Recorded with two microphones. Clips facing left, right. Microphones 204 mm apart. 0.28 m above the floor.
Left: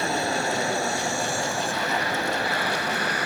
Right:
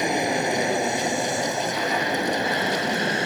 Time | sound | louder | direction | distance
0.0 | an aircraft | right 3 dB | 15° right (ahead or behind) | ?